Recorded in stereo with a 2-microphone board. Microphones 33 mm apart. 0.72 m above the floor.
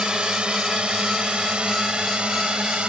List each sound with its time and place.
0.0 s a drone: 30° right (ahead or behind); by 2.9 s 35° right (ahead or behind)